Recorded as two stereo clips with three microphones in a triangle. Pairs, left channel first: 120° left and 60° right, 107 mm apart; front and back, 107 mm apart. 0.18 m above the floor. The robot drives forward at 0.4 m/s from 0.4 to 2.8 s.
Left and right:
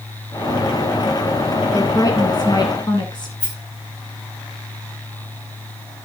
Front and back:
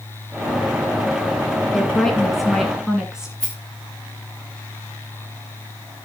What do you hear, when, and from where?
1.7 s a woman speaking: 85° left, 2 m; by 3.3 s 100° left, 2 m
3.4 s a rattle: 85° left, 6 m